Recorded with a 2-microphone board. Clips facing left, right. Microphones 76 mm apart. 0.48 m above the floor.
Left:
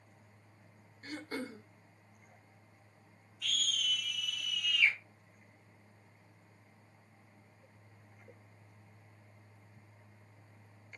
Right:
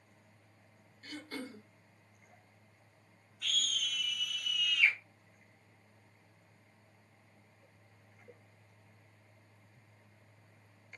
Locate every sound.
1.0 s throat clearing: 30° left (ahead or behind), 0.5 m
3.4 s a scream: 50° right (ahead or behind), 1.3 m